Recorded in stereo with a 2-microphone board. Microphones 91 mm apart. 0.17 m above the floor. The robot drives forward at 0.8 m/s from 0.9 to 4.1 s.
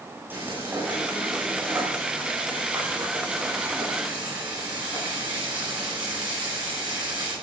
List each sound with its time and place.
0.3 s frying: 20° right (ahead or behind), 9 m; by 7.3 s 15° right (ahead or behind), 11.5 m